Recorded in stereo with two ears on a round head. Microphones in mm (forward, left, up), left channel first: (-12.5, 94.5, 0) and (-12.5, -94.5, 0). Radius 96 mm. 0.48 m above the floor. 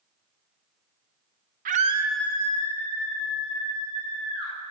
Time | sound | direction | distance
1.6 | a scream | 40° right (ahead or behind) | 1.0 m